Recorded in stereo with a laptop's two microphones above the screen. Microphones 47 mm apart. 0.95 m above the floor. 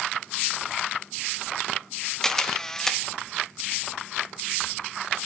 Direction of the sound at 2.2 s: 10° left (ahead or behind).